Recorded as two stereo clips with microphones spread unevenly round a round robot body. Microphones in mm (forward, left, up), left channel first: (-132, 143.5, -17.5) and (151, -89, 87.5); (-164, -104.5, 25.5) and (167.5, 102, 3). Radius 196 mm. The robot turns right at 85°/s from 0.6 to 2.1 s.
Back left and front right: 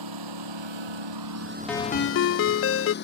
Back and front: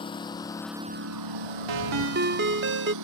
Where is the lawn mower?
70° right; by 3.0 s 80° left.